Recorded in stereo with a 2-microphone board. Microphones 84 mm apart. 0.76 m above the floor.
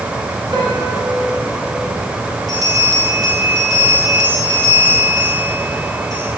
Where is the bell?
45° right (ahead or behind), 5.5 m.